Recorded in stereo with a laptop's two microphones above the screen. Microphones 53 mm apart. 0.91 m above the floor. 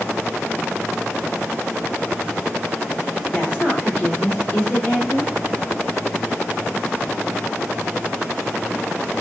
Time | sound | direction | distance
3.3 | a woman speaking | 35° left (ahead or behind) | 2 m